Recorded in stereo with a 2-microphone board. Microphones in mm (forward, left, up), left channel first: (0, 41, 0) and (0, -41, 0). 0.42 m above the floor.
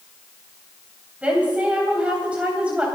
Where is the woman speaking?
15° right (ahead or behind), 3 m.